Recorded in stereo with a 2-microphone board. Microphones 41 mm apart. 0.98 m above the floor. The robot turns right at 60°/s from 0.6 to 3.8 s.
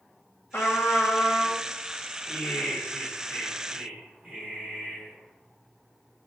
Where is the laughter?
110° left, 3 m; by 5.1 s 160° right, 3 m.